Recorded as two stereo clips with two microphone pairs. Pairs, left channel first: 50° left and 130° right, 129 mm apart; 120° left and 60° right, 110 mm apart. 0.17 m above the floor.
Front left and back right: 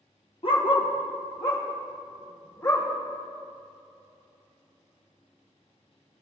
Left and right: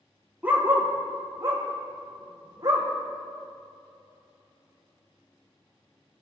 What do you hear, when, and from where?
0.4 s a dog barking: 15° left, 1.2 m; by 2.9 s 10° right, 2.5 m